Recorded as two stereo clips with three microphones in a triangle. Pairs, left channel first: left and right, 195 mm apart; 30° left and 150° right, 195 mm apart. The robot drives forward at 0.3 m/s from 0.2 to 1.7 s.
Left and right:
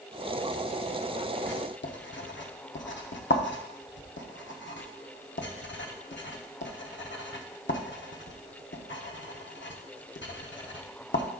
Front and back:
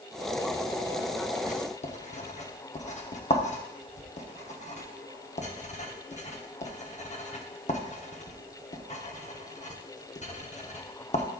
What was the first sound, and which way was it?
Writing, 75° left.